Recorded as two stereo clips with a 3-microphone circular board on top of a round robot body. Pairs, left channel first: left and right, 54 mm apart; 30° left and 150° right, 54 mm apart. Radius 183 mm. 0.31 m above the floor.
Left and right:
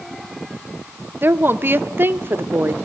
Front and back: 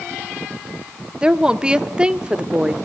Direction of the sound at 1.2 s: 85° right.